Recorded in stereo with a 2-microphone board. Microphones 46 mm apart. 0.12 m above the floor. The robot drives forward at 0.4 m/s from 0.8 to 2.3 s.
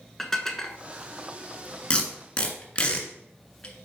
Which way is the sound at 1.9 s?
25° left (ahead or behind).